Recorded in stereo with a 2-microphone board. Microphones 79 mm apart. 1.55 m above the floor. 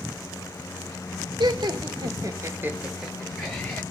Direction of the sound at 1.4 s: 70° right (ahead or behind).